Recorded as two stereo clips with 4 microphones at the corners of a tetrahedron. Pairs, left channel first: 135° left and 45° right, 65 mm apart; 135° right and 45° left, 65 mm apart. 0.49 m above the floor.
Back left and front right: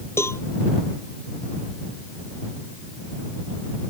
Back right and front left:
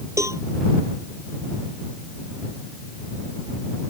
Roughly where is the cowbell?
Left.